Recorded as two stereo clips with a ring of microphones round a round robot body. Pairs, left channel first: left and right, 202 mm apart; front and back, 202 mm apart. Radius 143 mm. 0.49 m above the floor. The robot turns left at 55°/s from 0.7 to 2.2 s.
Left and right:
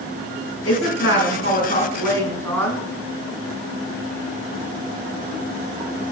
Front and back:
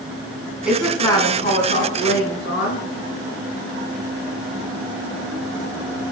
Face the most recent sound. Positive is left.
turn(degrees=10)